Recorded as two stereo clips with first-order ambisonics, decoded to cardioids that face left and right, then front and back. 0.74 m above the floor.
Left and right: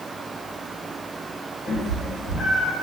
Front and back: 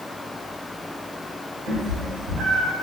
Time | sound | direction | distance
1.7 | a cat meowing | 145° left | 1.7 m